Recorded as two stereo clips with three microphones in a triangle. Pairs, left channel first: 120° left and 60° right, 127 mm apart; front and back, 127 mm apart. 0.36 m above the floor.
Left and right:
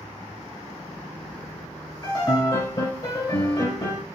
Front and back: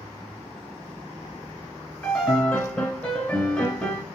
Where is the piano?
80° left, 1.8 m.